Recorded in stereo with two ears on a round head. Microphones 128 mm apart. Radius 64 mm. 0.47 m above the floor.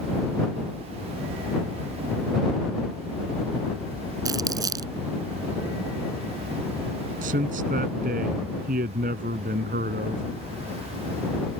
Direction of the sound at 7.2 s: 60° right (ahead or behind).